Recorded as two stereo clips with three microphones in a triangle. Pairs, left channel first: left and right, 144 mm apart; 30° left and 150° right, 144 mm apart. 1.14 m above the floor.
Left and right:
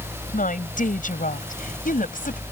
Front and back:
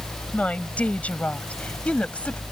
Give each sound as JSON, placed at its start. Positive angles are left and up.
{"t": 0.3, "sound": "a woman speaking", "azimuth_deg": 110}